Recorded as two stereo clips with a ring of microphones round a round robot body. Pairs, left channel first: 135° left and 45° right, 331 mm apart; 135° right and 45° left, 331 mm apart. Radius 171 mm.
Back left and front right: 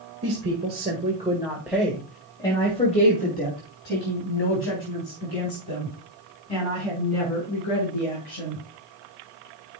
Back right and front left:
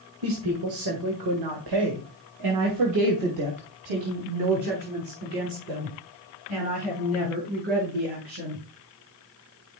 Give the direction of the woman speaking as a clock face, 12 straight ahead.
12 o'clock.